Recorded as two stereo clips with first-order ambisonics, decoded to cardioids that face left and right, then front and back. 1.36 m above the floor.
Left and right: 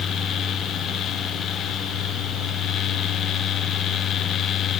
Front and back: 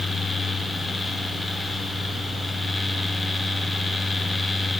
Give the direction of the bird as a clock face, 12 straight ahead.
I don't hear a bird.